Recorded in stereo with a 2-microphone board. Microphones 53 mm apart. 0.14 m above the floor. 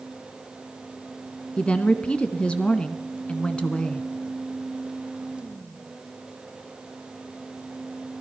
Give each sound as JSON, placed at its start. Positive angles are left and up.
{"t": 1.6, "sound": "a woman speaking", "side_deg": 20, "distance_m": 1.3}